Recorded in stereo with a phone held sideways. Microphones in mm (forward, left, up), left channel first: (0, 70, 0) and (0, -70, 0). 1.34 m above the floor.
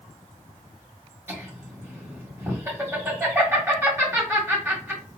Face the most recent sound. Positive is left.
turn(degrees=-15)  # may be behind; listen again after turning